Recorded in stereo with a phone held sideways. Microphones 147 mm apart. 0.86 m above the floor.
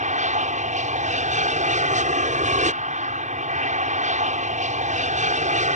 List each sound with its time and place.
0.0 s an aircraft: 55° right (ahead or behind)